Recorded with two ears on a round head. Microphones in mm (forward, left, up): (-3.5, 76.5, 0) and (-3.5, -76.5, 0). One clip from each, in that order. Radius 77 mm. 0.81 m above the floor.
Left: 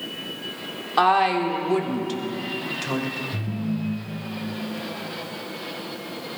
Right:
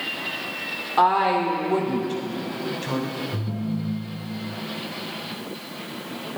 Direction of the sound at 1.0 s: 50° left (ahead or behind).